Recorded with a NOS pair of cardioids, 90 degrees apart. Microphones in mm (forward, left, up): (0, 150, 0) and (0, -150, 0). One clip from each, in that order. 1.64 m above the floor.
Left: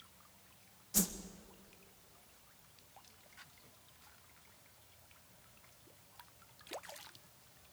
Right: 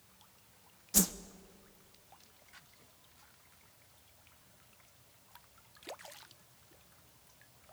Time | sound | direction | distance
0.9 | a whoosh | 30° right | 1.2 m